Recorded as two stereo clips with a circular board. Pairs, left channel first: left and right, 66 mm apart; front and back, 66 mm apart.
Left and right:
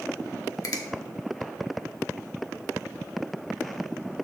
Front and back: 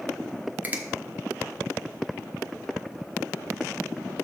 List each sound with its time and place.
0.6 s a finger snap: 115° left, 1.0 m